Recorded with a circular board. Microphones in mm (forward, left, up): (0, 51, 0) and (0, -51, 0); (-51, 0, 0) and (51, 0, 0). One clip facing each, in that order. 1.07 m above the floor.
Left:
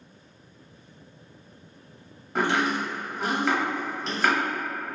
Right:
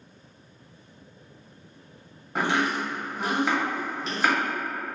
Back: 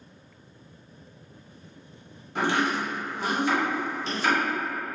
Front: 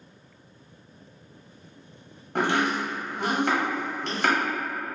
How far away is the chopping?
About 0.8 m.